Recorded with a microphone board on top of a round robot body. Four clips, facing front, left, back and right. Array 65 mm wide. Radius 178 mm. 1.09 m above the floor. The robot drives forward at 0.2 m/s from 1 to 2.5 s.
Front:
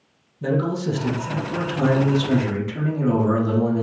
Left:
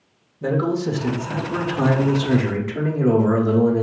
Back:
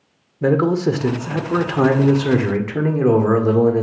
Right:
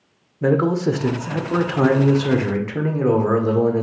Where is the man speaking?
145° right, 0.8 m; by 3.8 s 155° right, 1.0 m.